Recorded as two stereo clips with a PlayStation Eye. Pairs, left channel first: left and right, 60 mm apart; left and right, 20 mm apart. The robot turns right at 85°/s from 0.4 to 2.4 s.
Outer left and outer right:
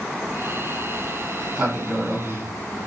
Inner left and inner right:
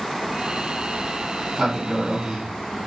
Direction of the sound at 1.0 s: 55° right (ahead or behind).